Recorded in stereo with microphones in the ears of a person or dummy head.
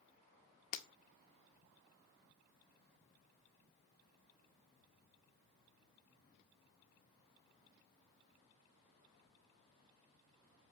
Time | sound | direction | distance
0.7 | breaking glass | 45° left (ahead or behind) | 1.9 m